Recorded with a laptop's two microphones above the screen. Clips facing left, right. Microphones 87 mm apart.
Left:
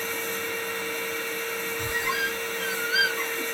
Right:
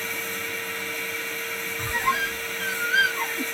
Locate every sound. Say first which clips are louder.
0.0 s a machine running: left 2 dB; 20° left (ahead or behind), 1.5 m
1.8 s a squeak: right 5 dB; 40° right (ahead or behind), 0.6 m